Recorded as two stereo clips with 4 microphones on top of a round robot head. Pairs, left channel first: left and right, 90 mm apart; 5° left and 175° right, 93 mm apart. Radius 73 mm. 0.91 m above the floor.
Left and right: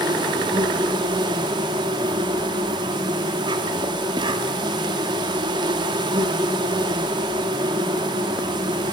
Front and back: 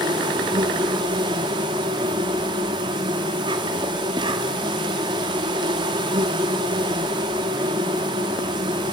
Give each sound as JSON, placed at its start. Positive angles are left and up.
{"t": 0.0, "sound": "an insect", "azimuth_deg": -130, "distance_m": 2.5}